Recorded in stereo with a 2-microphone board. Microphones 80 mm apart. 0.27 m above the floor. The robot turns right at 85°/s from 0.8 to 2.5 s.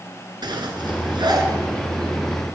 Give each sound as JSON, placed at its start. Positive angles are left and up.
{"t": 0.4, "sound": "a zipper", "side_deg": -70, "distance_m": 1.6}